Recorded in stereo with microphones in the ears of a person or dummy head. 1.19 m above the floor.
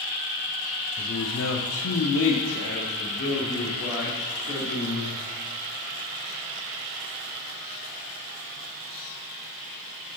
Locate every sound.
1.0 s a man speaking: 35° left (ahead or behind), 0.6 m; by 5.2 s 45° left (ahead or behind), 2.5 m